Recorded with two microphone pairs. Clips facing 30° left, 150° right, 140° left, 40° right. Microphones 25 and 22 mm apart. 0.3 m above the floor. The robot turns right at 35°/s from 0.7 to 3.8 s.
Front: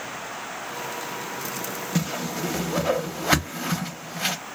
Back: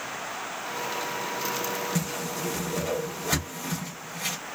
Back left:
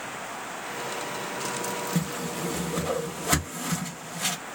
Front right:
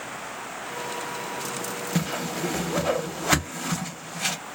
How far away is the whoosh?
About 0.6 m.